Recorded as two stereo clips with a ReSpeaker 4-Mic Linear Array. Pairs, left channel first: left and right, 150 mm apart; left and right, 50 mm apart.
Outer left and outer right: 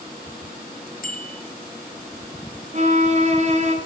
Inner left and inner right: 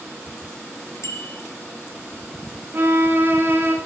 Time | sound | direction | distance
1.0 | a bicycle bell | 60° left (ahead or behind) | 3 m
2.7 | a violin | 45° right (ahead or behind) | 3 m